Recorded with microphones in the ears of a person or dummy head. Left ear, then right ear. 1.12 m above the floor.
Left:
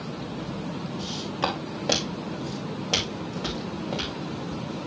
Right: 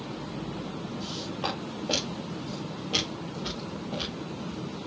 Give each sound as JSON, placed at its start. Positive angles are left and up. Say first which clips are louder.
{"t": 1.0, "sound": "footsteps", "louder": "left 5 dB", "side_deg": 65, "distance_m": 6.5}